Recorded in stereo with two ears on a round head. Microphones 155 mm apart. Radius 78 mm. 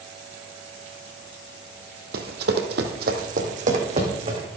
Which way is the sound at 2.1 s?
60° right (ahead or behind).